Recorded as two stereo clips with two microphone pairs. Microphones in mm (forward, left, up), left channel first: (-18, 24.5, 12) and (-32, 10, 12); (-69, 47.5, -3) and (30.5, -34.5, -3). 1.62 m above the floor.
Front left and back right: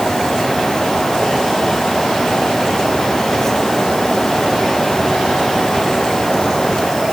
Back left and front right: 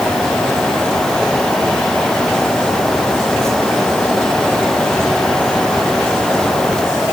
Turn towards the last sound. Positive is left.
No sound to turn to.